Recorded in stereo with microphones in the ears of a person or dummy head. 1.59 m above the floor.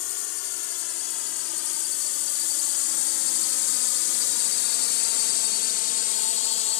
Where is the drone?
70° left (ahead or behind); by 6.8 s 40° left (ahead or behind).